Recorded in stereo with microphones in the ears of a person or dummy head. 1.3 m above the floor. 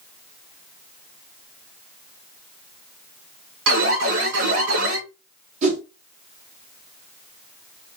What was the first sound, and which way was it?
An alarm, 75° right (ahead or behind).